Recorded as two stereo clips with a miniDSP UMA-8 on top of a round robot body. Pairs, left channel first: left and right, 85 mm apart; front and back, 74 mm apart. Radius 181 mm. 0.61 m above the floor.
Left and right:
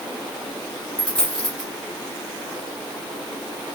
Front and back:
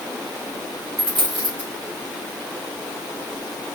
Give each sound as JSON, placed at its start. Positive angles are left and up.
{"t": 1.0, "sound": "a dropped coin", "azimuth_deg": 175, "distance_m": 1.8}